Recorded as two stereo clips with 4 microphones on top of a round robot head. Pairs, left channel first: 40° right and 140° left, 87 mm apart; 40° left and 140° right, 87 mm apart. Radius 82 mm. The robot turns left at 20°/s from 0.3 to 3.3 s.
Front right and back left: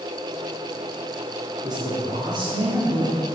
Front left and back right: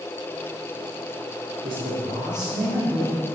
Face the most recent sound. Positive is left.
turn(degrees=155)